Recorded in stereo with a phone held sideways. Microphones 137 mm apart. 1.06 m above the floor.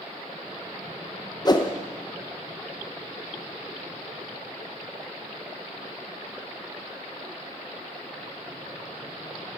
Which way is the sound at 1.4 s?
30° left (ahead or behind).